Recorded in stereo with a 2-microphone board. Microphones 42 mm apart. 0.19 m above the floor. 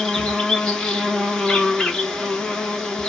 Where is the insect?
10° left (ahead or behind), 0.8 m.